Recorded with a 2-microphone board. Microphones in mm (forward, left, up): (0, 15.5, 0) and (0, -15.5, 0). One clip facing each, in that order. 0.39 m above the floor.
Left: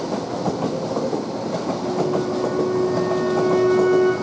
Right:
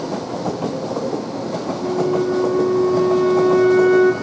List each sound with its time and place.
1.8 s a flute: 75° right (ahead or behind), 2 m